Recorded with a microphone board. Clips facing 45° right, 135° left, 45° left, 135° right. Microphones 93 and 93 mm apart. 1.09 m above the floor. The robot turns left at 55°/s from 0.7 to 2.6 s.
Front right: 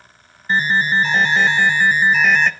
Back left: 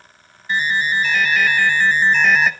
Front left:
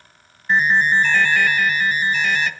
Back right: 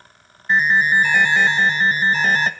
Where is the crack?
No crack in this recording.